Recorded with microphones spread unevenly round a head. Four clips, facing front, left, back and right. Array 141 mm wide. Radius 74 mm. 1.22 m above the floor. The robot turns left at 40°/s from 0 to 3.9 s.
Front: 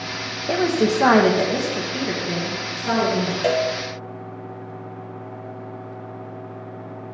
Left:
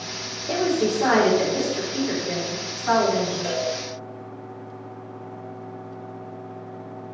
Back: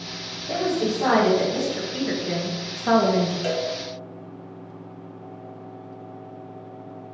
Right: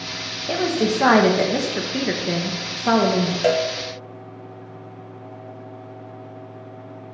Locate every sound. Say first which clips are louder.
0.5 s a woman speaking: right 1 dB, front 4 dB; 15° right, 1.2 m; by 3.3 s 130° right, 1.2 m
3.4 s a cowbell: right 7 dB, front 5 dB; 70° right, 0.7 m; by 3.7 s 80° right, 0.7 m